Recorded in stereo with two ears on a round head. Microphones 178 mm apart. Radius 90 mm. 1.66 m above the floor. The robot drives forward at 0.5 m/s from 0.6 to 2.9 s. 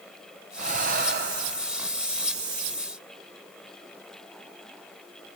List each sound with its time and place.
0.6 s breathing: 35° right (ahead or behind), 1.2 m; by 1.6 s 55° right (ahead or behind), 0.9 m